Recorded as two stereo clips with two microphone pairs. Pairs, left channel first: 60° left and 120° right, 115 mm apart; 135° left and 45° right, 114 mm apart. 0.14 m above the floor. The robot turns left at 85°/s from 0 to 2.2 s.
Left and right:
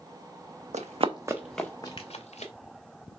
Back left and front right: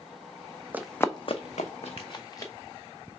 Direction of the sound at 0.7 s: 115° right.